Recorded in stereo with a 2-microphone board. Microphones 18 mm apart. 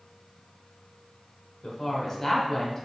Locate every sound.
1.6 s a woman speaking: 10° left (ahead or behind), 1.0 m